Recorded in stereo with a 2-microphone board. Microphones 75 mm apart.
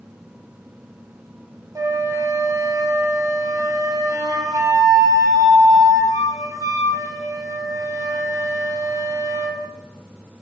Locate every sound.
1.8 s a flute: 50° right (ahead or behind), 2 m